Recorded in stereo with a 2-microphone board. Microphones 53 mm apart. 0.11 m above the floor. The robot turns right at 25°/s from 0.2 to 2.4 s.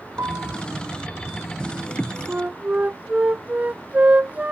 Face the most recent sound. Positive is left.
turn(degrees=-30)  # may be behind; listen again after turning